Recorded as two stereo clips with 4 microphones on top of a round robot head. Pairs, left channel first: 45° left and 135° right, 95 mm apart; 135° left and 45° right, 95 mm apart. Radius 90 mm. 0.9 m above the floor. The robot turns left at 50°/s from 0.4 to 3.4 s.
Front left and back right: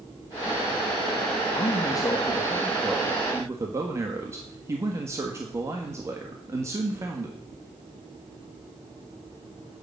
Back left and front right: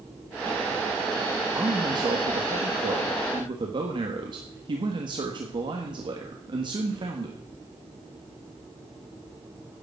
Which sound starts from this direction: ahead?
A man speaking, at 1.5 s.